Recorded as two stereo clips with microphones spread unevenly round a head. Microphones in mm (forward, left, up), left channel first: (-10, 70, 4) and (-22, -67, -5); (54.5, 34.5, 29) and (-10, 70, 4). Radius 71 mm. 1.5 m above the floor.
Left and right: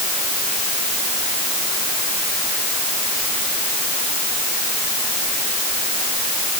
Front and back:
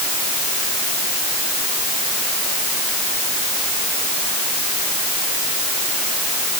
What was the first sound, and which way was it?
Only background noise.